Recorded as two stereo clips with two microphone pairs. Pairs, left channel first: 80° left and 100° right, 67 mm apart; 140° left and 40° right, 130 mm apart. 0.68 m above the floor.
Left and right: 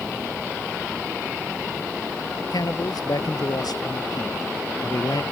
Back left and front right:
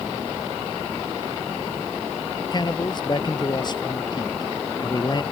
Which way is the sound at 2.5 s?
90° left.